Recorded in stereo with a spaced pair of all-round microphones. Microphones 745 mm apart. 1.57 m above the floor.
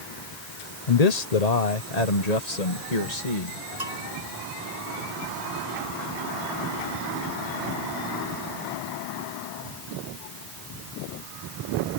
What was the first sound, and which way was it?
A man speaking, 55° left (ahead or behind).